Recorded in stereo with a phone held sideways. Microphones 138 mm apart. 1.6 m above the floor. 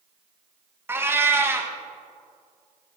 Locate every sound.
0.9 s a cat meowing: 15° right (ahead or behind), 0.8 m